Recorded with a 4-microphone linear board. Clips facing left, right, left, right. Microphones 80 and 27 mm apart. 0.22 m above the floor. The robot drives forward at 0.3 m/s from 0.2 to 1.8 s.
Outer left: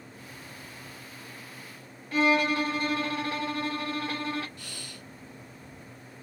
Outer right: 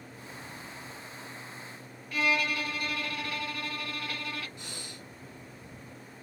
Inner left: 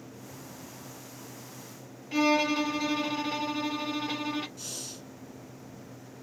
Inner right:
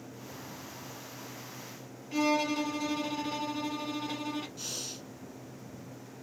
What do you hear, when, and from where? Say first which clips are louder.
2.1 s a violin: outer left 5 dB, inner left 3 dB; 30° left (ahead or behind), 0.5 m
4.6 s breathing: even, inner right 1 dB; 20° right (ahead or behind), 0.8 m